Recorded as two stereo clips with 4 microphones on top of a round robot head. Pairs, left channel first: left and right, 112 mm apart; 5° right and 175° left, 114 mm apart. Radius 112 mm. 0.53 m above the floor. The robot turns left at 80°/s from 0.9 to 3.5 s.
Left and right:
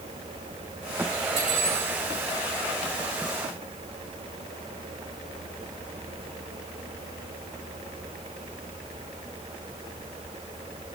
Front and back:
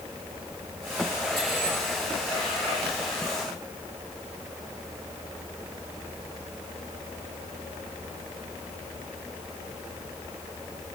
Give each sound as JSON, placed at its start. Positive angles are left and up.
{"t": 1.4, "sound": "cutlery clinking", "azimuth_deg": -95, "distance_m": 6.0}